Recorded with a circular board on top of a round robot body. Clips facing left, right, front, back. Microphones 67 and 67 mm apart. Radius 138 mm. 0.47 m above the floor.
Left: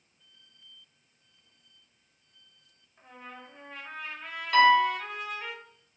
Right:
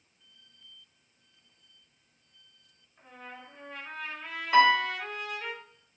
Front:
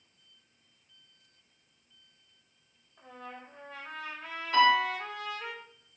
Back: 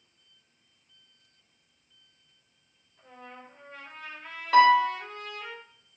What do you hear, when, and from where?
3.0 s a trumpet: 5° left, 0.6 m
4.5 s a piano: 160° right, 0.9 m